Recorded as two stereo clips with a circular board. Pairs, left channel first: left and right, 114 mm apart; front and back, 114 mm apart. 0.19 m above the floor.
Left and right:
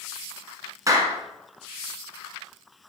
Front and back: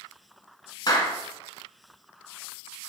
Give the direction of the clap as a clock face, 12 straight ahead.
1 o'clock.